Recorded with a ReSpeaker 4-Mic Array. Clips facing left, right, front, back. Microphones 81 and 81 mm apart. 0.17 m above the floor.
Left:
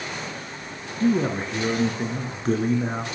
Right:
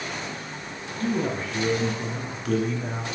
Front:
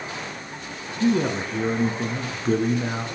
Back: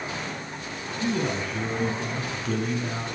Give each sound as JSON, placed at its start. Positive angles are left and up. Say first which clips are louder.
{"t": 1.0, "sound": "a man speaking", "louder": "left 5 dB, front 6 dB", "azimuth_deg": 40, "distance_m": 3.0}